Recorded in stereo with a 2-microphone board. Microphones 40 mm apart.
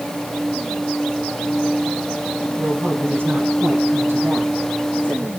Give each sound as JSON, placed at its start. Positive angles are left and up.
{"t": 2.6, "sound": "a woman speaking", "side_deg": -65, "distance_m": 4.5}